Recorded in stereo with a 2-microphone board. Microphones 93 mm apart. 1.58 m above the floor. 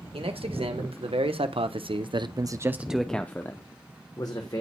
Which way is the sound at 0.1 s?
75° right (ahead or behind).